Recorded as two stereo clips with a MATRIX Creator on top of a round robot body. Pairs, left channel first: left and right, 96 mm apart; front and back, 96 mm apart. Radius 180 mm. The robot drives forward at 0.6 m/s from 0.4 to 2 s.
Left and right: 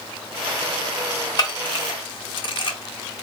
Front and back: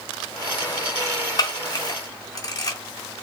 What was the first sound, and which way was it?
A camera shutter, 45° left.